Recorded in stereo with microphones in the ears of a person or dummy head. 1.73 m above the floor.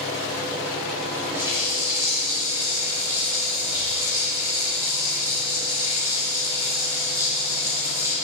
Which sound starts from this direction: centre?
A running tap, at 1.4 s.